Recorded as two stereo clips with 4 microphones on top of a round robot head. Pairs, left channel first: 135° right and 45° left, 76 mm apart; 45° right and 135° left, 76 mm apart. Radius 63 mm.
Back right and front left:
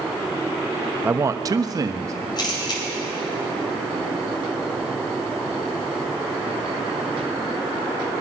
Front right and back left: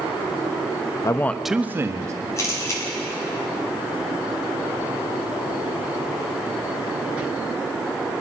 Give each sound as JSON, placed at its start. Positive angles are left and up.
{"t": 1.0, "sound": "a man speaking", "azimuth_deg": -15, "distance_m": 0.7}
{"t": 2.4, "sound": "a camera shutter", "azimuth_deg": -100, "distance_m": 3.0}